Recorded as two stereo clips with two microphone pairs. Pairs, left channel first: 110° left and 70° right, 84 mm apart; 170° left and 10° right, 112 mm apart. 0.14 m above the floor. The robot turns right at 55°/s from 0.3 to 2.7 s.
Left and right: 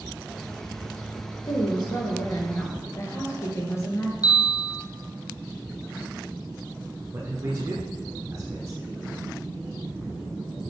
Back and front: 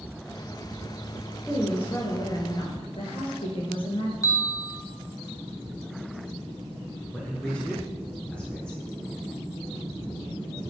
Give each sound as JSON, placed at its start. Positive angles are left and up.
{"t": 1.4, "sound": "a woman speaking", "azimuth_deg": 85, "distance_m": 2.5}
{"t": 4.2, "sound": "a bell", "azimuth_deg": 120, "distance_m": 0.9}
{"t": 7.1, "sound": "a man speaking", "azimuth_deg": -115, "distance_m": 1.4}